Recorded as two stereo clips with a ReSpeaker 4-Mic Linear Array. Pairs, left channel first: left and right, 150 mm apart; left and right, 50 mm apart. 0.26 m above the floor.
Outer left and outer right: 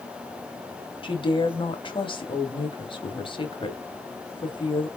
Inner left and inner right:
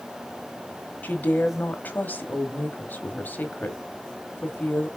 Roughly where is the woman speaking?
Left.